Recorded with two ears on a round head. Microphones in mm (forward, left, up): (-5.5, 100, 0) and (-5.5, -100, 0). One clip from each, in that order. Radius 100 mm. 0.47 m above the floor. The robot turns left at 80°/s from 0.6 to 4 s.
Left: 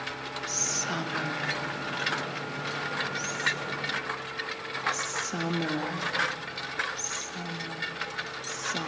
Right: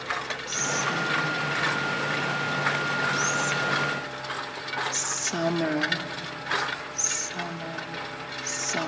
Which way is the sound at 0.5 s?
10° left (ahead or behind).